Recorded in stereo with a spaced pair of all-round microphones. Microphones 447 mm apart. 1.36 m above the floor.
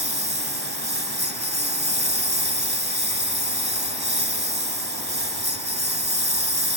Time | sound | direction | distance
0.0 | a lawn mower | 55° right (ahead or behind) | ?